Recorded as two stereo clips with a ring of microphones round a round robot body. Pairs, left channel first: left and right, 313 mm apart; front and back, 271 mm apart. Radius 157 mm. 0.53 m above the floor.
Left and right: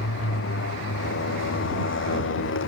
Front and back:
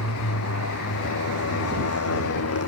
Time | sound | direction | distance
0.0 | a motorcycle | 35° left | ?